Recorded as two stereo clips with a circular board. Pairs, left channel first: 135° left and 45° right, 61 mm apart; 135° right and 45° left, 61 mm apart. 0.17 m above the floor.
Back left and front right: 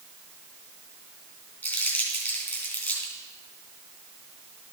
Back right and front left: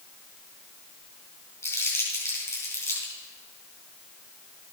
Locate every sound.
1.6 s crumpling: 170° right, 3.5 m